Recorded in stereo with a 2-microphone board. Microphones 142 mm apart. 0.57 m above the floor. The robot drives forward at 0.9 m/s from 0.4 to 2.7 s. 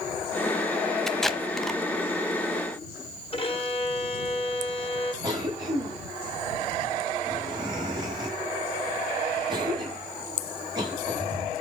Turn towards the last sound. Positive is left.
turn(degrees=-30)  # may be behind; listen again after turning